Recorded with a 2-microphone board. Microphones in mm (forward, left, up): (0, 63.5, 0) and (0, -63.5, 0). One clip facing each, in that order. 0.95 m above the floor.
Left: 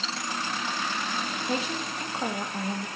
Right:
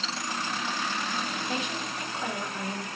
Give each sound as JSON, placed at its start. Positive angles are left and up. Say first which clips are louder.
{"t": 1.4, "sound": "a woman speaking", "louder": "left 2 dB", "side_deg": 35, "distance_m": 0.8}